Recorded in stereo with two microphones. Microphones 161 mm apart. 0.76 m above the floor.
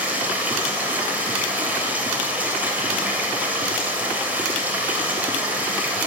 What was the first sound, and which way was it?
Running water, 10° right (ahead or behind).